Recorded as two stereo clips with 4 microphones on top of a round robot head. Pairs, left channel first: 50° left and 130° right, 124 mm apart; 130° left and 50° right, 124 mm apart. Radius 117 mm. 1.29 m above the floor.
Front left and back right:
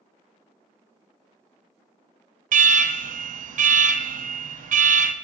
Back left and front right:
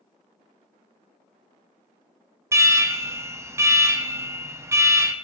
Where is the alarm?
120° right, 0.7 m.